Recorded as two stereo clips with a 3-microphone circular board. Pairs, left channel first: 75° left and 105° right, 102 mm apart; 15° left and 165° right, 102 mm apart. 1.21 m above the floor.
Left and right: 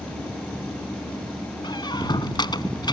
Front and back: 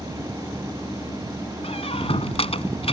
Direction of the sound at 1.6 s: 30° left.